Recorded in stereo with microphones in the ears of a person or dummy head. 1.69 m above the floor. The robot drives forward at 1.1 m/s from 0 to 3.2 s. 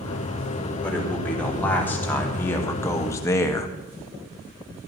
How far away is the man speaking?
About 4.5 m.